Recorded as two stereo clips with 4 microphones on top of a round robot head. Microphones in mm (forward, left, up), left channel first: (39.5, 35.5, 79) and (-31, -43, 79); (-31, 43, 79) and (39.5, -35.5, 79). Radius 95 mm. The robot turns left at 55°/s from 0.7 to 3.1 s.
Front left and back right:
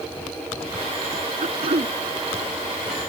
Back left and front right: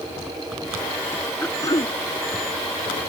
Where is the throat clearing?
155° right; by 1.9 s 175° left.